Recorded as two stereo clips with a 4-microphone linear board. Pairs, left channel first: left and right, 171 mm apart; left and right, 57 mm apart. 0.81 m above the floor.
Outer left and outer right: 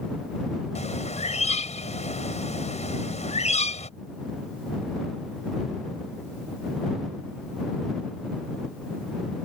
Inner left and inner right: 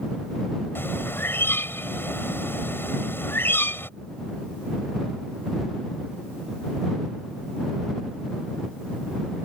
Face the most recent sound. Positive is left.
turn(degrees=45)  # may be behind; listen again after turning